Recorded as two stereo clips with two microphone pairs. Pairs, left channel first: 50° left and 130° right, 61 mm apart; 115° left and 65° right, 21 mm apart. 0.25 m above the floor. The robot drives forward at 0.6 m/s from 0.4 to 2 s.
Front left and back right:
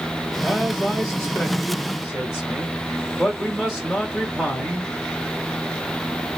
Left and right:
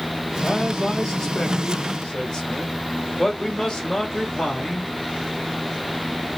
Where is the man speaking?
35° left, 1.6 m; by 4.9 s 145° left, 1.5 m.